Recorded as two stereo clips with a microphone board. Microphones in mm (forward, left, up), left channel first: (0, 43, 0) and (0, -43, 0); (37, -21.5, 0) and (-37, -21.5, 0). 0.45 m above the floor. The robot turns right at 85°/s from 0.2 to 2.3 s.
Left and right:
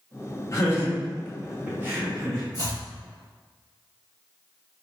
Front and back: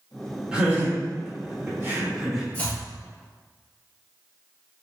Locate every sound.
0.5 s laughter: 110° left, 1.5 m; by 2.4 s 100° right, 1.5 m
2.5 s chopping: 55° left, 1.6 m